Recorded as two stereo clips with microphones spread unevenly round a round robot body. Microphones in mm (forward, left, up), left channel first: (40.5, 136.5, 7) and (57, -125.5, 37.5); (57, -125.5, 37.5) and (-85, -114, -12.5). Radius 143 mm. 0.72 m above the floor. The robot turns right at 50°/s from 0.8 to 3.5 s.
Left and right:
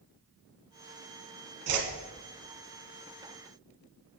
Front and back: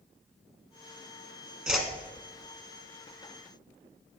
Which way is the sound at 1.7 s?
90° right.